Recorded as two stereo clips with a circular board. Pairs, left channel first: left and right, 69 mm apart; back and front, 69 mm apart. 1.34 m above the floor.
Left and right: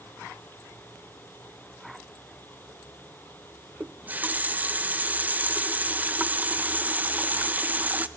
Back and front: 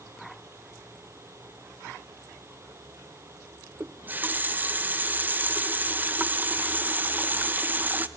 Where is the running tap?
45° right, 0.5 m.